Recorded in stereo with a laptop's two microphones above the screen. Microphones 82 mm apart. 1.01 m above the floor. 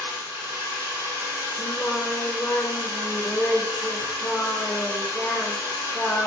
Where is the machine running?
40° right (ahead or behind), 3 m.